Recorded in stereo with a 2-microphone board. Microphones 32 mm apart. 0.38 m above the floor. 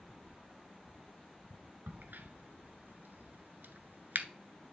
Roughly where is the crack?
Right.